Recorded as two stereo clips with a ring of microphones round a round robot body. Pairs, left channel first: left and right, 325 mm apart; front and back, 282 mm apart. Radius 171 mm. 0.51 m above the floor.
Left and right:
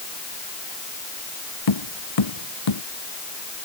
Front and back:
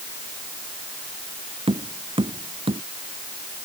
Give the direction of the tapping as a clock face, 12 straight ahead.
8 o'clock.